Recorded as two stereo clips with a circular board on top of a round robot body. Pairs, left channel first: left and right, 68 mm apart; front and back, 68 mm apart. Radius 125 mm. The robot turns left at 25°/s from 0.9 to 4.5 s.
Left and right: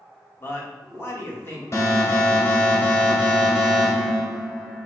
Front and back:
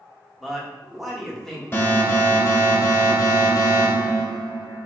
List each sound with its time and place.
0.4 s a man speaking: 95° left, 1.0 m; by 1.6 s 75° left, 1.0 m
1.7 s an alarm: 55° left, 1.1 m; by 4.9 s 15° right, 1.1 m